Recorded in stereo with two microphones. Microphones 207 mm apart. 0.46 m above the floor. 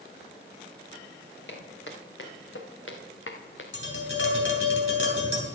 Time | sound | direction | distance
1.5 | footsteps | 65° left (ahead or behind) | 3.5 m
3.7 | tapping | 70° left (ahead or behind) | 3 m